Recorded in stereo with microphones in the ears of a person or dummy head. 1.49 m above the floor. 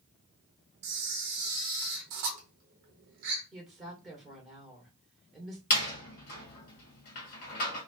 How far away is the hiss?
I don't hear a hiss.